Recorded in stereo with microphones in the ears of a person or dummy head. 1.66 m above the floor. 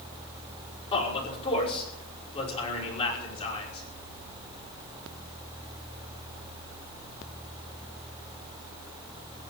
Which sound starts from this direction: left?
A man speaking, at 0.9 s.